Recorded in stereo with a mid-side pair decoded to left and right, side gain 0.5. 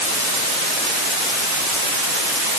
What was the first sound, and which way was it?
Only background noise.